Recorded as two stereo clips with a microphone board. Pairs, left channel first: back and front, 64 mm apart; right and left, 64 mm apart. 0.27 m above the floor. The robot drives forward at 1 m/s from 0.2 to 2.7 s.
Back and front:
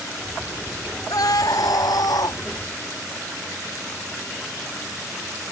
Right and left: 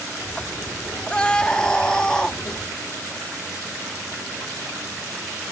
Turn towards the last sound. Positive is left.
turn(degrees=-170)